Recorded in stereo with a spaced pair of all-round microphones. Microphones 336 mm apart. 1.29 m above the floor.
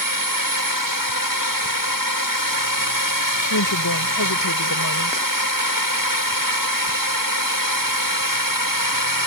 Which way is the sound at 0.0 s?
75° right (ahead or behind).